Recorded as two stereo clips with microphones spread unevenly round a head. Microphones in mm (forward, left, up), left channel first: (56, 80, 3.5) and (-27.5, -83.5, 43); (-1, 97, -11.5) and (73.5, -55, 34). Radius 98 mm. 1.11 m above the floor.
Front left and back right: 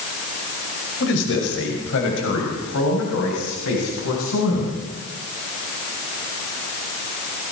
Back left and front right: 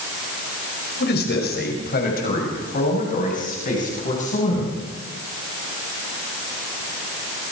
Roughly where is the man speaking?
Left.